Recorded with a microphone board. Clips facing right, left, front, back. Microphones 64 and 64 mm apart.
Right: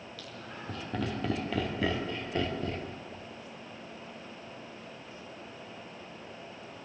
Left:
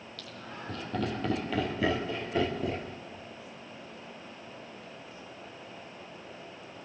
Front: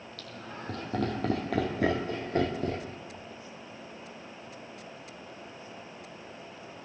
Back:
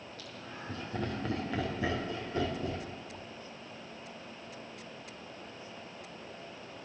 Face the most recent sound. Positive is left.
turn(degrees=15)